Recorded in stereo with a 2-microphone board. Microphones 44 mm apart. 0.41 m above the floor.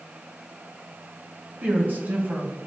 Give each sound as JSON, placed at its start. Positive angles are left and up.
{"t": 1.6, "sound": "a woman speaking", "side_deg": -45, "distance_m": 2.5}